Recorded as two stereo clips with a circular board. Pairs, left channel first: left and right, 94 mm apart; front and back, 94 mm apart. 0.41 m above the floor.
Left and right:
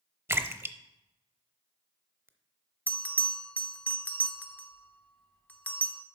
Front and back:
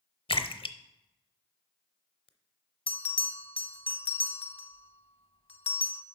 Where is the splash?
25° right, 0.6 m.